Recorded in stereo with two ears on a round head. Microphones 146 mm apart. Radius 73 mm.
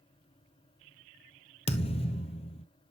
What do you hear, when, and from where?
1.7 s a thud: 35° left (ahead or behind), 1.0 m